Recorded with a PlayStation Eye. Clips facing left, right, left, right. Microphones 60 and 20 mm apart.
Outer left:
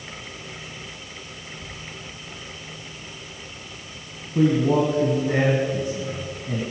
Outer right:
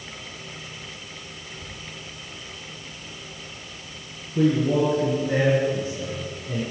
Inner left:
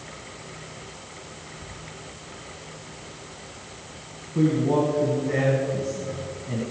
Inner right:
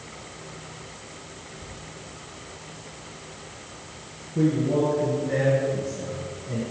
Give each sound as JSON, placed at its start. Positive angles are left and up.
{"t": 1.6, "sound": "whispering", "side_deg": -30, "distance_m": 3.0}
{"t": 4.3, "sound": "a man speaking", "side_deg": 65, "distance_m": 2.5}